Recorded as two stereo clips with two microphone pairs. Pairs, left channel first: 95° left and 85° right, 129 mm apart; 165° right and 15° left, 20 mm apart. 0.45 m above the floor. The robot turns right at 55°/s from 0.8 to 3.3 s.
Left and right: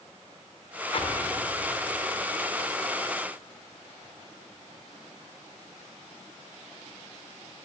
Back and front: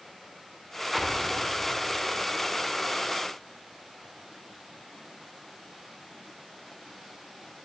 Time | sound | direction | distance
0.9 | an explosion | 115° left | 0.7 m